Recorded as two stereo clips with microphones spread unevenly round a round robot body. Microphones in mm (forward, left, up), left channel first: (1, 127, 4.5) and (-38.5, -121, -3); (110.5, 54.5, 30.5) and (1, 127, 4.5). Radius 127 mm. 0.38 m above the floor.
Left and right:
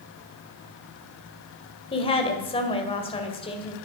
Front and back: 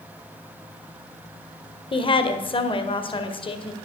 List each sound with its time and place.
1.9 s a woman speaking: 15° left, 1.8 m